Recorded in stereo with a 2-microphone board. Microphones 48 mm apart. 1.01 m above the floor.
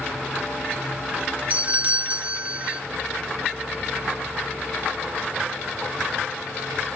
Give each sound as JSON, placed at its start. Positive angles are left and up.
{"t": 1.5, "sound": "a doorbell", "side_deg": -30, "distance_m": 0.8}